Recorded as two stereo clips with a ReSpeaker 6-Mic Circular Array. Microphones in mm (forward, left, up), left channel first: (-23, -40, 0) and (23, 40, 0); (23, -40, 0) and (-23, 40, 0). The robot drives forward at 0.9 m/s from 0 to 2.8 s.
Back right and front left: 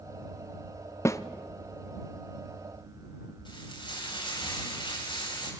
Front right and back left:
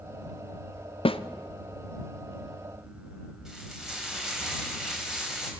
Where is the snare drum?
60° right, 0.9 m; by 1.2 s 70° right, 0.9 m.